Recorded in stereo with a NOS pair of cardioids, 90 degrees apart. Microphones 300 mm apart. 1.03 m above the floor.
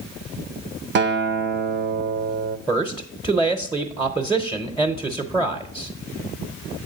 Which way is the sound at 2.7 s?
10° right.